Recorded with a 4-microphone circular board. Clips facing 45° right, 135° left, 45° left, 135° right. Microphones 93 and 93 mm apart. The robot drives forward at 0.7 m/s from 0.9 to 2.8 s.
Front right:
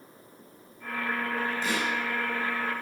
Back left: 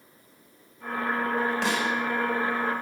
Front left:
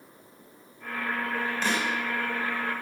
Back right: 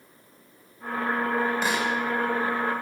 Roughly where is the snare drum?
Behind left.